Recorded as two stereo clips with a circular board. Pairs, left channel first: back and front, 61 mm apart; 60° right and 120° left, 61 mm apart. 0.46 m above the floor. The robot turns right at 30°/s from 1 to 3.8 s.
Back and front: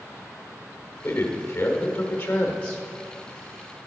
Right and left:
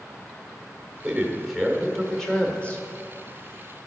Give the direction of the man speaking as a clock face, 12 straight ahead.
6 o'clock.